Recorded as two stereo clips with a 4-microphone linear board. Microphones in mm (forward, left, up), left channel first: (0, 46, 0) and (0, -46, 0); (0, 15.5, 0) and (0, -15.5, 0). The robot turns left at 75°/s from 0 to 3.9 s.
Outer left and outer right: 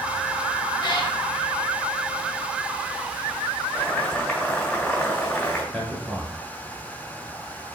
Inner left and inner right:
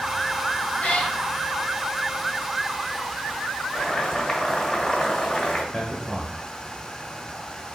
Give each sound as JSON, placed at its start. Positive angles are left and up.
{"t": 0.8, "sound": "a cat meowing", "side_deg": 55, "distance_m": 0.6}
{"t": 3.7, "sound": "boiling", "side_deg": 20, "distance_m": 1.2}
{"t": 5.7, "sound": "a man speaking", "side_deg": 10, "distance_m": 1.1}